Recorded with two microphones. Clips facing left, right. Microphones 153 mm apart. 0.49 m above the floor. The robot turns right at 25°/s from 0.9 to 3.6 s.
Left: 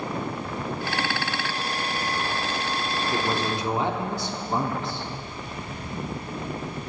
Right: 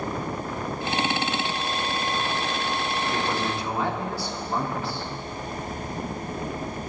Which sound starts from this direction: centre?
A man speaking, at 3.1 s.